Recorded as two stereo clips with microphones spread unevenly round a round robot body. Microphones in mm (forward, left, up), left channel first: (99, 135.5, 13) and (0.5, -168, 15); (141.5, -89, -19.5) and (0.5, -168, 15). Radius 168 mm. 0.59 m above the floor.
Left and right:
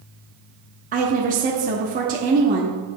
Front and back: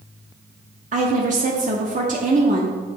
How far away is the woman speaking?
About 0.8 m.